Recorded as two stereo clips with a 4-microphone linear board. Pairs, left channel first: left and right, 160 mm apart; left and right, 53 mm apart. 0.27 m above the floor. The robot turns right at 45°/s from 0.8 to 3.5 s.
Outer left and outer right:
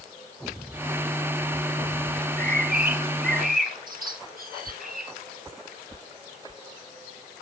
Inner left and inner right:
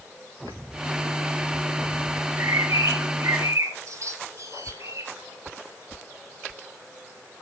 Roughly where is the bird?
Right.